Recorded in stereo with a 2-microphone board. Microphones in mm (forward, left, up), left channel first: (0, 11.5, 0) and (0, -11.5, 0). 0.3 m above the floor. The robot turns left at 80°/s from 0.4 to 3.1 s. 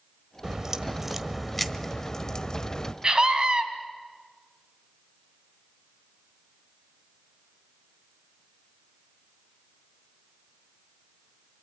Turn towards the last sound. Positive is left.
turn(degrees=-40)  # may be behind; listen again after turning